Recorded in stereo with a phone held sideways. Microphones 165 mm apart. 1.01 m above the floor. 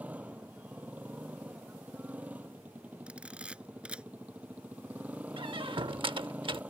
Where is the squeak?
30° right (ahead or behind).